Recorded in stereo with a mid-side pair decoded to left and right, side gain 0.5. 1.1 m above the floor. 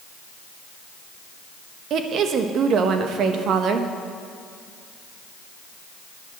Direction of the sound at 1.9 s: 60° right.